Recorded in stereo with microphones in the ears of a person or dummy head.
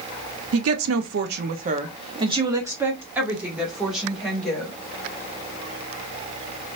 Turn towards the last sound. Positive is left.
turn(degrees=0)  # may be behind; listen again after turning